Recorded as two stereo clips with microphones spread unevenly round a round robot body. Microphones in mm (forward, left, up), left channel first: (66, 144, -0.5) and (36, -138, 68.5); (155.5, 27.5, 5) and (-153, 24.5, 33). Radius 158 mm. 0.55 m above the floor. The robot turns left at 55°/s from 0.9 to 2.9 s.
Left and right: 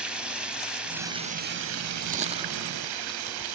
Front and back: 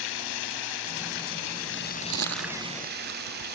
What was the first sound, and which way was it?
Running water, 5° right.